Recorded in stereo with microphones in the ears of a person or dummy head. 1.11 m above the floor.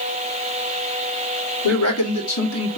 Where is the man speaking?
80° left, 2.5 m.